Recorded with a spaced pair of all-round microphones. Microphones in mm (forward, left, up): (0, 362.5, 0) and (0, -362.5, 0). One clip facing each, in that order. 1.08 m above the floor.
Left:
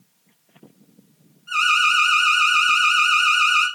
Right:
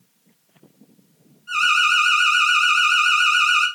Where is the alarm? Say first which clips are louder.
Even; 15° left (ahead or behind), 3 m.